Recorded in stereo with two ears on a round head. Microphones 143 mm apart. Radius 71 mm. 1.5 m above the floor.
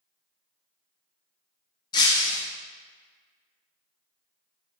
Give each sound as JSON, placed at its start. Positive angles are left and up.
{"t": 1.9, "sound": "breaking glass", "side_deg": 25, "distance_m": 0.6}